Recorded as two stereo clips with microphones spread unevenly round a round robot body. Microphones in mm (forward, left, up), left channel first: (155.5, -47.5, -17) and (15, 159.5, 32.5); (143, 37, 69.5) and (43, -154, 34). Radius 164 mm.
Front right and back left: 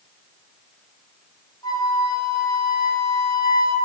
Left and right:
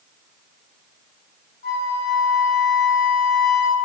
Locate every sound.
1.6 s a flute: 15° left, 0.6 m